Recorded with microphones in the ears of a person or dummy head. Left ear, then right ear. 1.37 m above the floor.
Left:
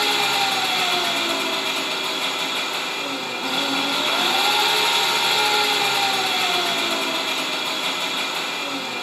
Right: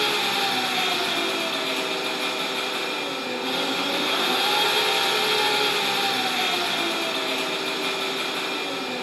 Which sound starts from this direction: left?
An engine running, at 0.0 s.